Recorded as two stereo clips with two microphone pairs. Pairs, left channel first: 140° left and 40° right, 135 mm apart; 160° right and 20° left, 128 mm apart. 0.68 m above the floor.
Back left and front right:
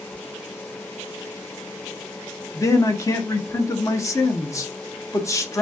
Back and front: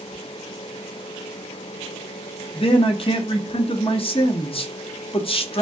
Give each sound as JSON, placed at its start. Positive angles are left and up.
{"t": 2.5, "sound": "a man speaking", "azimuth_deg": -165, "distance_m": 0.7}